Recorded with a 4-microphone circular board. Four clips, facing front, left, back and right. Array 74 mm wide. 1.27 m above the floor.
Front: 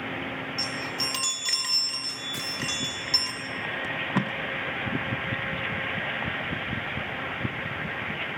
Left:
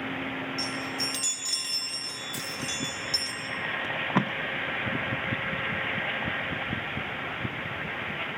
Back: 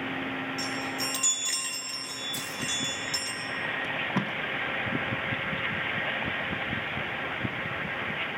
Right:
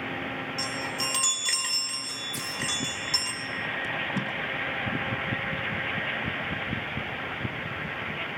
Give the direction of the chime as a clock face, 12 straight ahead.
2 o'clock.